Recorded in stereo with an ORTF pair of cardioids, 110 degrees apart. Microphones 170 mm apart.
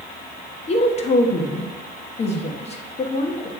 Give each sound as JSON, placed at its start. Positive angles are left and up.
{"t": 0.7, "sound": "a woman speaking", "azimuth_deg": 40, "distance_m": 1.5}